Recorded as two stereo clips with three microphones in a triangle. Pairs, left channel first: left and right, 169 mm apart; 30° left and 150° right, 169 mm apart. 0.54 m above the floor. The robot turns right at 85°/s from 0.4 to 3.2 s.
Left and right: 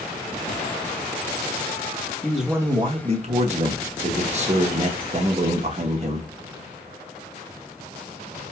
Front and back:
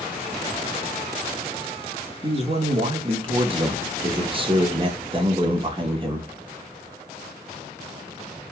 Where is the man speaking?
170° left, 0.8 m; by 6.3 s 105° right, 0.8 m.